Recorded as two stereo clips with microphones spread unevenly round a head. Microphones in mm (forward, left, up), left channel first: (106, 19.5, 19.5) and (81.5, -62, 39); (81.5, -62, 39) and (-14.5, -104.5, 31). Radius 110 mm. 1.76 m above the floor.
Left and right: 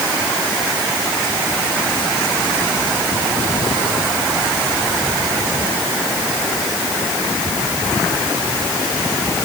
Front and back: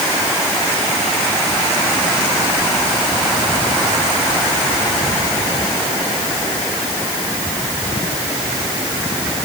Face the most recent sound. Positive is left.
No sound to turn to.